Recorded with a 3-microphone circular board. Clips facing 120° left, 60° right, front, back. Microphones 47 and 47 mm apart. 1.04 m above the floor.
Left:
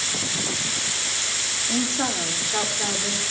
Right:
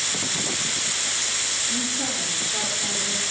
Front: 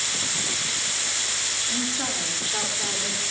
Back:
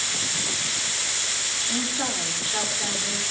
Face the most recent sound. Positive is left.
turn(degrees=85)